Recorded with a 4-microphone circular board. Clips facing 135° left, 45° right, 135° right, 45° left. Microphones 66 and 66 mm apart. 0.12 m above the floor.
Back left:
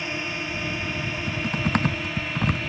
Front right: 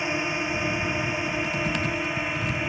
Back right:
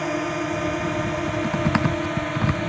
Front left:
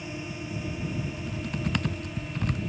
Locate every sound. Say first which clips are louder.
0.0 s a drone: front right 3 dB, back right 12 dB; 115° right
1.1 s typing on a keyboard: front right 1 dB, back right 11 dB; straight behind